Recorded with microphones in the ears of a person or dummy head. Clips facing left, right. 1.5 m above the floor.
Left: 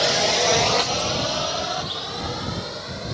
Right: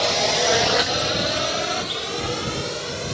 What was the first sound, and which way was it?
A drone, 15° left (ahead or behind).